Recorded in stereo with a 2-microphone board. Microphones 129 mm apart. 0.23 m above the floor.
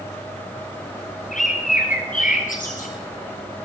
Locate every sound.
1.3 s a bird: 90° left, 6 m